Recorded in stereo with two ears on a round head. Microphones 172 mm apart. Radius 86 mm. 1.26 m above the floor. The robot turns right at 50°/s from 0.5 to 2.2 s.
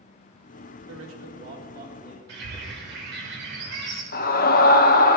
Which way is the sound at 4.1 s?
50° left (ahead or behind).